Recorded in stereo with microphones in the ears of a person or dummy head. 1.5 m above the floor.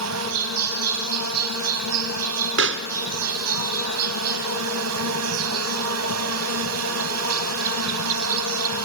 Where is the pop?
65° right (ahead or behind), 0.8 m.